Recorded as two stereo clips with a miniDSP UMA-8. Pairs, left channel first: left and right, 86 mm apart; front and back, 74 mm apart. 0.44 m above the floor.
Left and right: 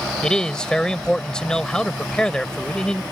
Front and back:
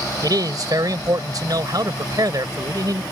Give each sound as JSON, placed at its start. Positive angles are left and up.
{"t": 0.2, "sound": "a man speaking", "azimuth_deg": 170}